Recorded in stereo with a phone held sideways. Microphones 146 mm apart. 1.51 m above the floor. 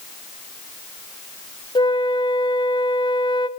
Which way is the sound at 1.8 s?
30° left (ahead or behind).